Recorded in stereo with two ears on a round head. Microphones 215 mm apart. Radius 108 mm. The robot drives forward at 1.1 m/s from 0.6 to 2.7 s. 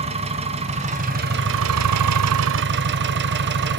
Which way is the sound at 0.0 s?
25° right (ahead or behind).